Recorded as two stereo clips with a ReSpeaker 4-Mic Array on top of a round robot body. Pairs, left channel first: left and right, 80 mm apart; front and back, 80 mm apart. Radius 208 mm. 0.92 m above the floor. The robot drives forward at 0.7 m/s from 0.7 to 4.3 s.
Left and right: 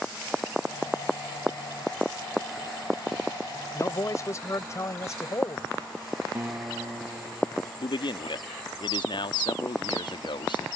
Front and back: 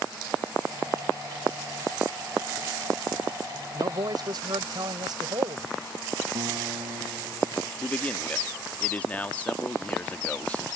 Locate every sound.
3.7 s a man speaking: 140° left; by 5.7 s 145° left
6.3 s a guitar: 155° right
7.8 s a man speaking: 75° left